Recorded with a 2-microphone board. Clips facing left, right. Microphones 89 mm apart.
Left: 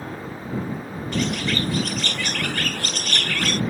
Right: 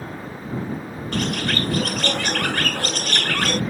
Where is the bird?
55° right (ahead or behind).